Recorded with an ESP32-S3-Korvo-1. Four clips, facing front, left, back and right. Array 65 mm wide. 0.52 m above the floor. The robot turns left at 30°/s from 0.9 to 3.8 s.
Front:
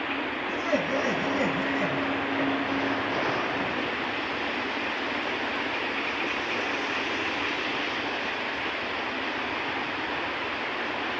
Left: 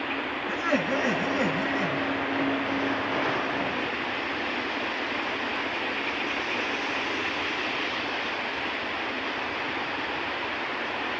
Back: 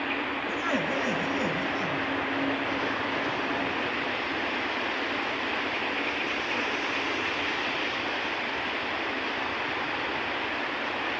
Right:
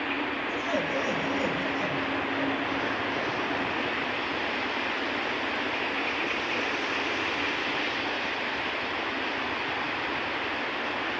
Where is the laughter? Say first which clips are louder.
Left 5 dB, front 3 dB; 110° left, 5 m; by 2.5 s 60° left, 5 m.